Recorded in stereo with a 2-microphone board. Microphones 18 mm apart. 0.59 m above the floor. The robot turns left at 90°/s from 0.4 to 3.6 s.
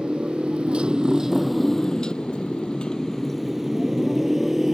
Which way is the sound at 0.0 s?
65° right (ahead or behind).